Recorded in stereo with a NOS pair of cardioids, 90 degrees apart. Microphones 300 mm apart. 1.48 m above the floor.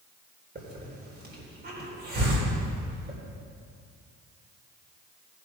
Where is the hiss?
35° right, 4 m.